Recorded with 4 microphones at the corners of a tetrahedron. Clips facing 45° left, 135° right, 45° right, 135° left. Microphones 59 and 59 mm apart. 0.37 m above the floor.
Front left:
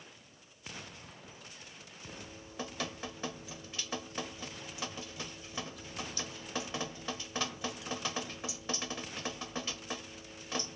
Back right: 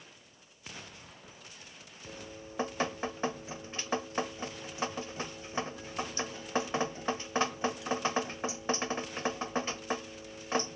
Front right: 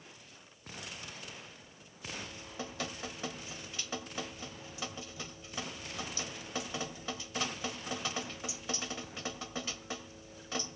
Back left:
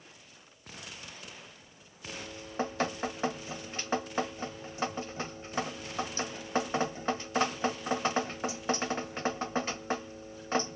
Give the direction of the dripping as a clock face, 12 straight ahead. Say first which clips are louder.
Back right 4 dB, back left 3 dB; 6 o'clock.